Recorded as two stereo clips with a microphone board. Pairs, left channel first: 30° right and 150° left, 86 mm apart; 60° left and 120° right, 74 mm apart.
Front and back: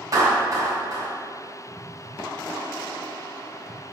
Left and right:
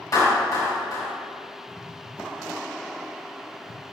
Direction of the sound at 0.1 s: 100° left.